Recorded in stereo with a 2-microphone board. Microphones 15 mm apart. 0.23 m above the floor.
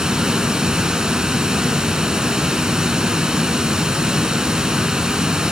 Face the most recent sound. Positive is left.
turn(degrees=-50)  # may be behind; listen again after turning